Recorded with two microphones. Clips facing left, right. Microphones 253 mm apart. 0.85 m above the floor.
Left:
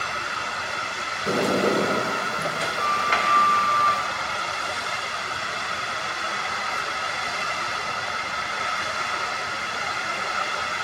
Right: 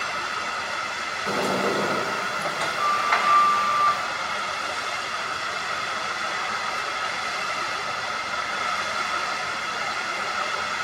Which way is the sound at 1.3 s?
30° left (ahead or behind).